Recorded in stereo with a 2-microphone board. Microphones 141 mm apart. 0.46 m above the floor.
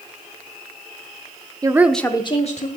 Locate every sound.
1.6 s a woman speaking: 25° right (ahead or behind), 1.0 m; by 2.7 s 55° left (ahead or behind), 1.4 m